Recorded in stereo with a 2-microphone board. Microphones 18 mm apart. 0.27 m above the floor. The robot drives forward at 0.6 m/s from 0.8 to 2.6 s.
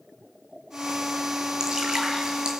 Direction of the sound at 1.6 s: 50° right (ahead or behind).